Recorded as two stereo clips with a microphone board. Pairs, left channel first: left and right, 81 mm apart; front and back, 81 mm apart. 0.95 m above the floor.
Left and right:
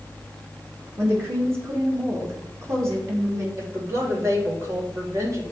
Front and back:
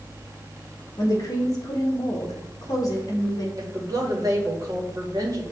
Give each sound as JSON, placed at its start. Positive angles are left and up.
{"t": 1.0, "sound": "a woman speaking", "azimuth_deg": -40, "distance_m": 1.5}
{"t": 3.6, "sound": "a woman speaking", "azimuth_deg": -140, "distance_m": 1.8}